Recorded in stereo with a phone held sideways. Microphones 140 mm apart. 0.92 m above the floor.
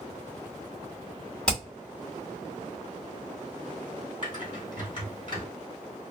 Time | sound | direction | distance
1.5 | hammering | 5° left (ahead or behind) | 2 m
4.2 | typing on a keyboard | 35° left (ahead or behind) | 2.5 m